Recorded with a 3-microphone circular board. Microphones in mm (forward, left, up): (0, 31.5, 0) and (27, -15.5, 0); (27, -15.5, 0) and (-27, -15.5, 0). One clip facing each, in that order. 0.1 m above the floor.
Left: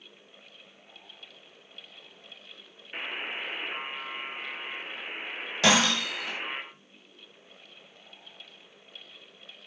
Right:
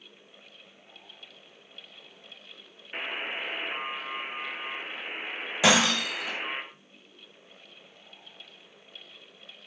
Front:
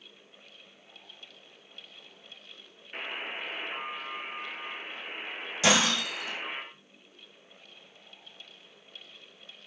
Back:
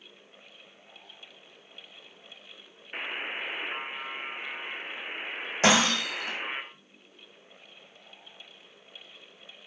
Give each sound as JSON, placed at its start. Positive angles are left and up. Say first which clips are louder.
{"t": 2.9, "sound": "a buzzer", "louder": "right 1 dB, back 2 dB", "azimuth_deg": -135, "distance_m": 1.3}
{"t": 5.6, "sound": "breaking glass", "louder": "right 1 dB, back 2 dB", "azimuth_deg": -140, "distance_m": 3.5}